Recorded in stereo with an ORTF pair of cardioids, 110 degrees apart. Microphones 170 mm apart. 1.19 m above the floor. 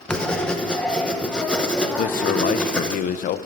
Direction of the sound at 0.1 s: 5° left.